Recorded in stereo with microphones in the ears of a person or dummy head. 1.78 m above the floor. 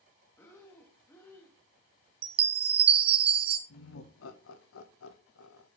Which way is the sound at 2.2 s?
30° right (ahead or behind).